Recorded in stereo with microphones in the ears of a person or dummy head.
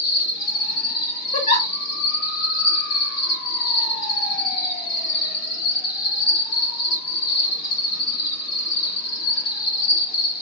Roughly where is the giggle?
Left.